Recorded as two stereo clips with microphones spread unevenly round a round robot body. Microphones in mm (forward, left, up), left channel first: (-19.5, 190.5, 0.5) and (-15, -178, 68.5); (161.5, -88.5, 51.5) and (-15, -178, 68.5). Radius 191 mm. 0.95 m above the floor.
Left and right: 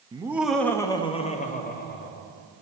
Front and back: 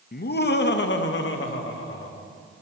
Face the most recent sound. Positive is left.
turn(degrees=35)